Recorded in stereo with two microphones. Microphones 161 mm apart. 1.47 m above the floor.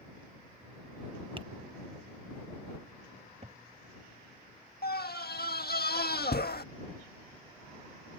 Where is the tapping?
35° right (ahead or behind).